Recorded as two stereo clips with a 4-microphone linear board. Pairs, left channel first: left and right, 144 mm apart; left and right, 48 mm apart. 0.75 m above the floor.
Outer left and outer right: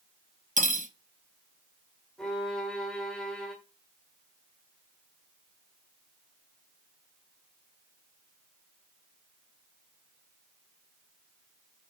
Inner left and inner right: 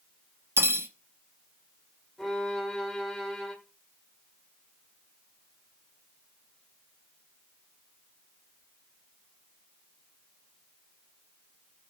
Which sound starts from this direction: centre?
A violin, at 2.2 s.